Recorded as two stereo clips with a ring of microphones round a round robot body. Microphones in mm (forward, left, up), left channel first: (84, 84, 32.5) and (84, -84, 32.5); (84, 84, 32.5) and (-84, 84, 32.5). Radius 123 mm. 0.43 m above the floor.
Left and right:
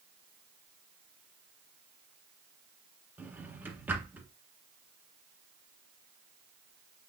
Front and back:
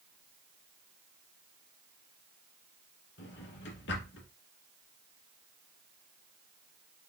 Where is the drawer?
10° right, 1.7 m.